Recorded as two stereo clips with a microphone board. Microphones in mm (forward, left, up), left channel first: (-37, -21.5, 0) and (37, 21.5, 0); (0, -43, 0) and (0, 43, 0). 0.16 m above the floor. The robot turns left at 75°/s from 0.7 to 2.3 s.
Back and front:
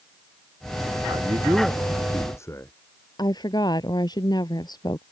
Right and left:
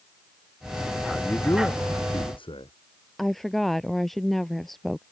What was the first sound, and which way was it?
A man speaking, straight ahead.